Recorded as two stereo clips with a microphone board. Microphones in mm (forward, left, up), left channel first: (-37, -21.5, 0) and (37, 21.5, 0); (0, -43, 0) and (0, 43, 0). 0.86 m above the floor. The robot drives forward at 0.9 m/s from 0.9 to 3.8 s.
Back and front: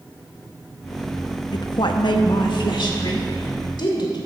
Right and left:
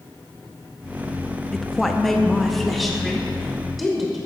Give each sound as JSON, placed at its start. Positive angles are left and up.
{"t": 1.5, "sound": "a woman speaking", "azimuth_deg": -175, "distance_m": 0.5}